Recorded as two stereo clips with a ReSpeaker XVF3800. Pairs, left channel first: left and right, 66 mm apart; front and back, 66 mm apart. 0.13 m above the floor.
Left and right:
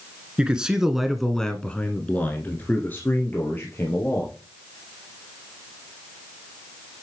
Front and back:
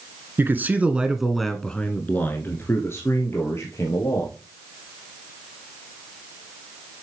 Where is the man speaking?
155° right, 1.3 m; by 4.3 s 35° left, 3 m.